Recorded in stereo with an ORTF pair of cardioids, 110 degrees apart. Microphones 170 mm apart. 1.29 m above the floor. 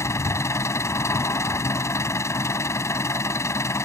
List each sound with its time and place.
0.0 s an engine running: 15° left